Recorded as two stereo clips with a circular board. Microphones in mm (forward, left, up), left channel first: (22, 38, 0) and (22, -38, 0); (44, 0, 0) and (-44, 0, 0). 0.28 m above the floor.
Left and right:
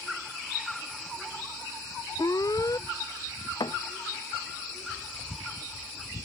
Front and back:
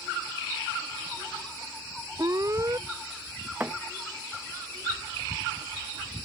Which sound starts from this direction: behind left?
An alarm, at 2.2 s.